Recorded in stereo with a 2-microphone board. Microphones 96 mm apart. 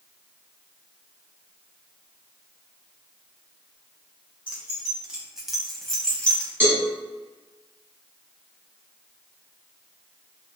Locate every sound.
4.5 s keys jangling: 15° right (ahead or behind), 1.3 m; by 6.5 s 15° left (ahead or behind), 1.0 m
6.6 s a cowbell: 20° right (ahead or behind), 1.8 m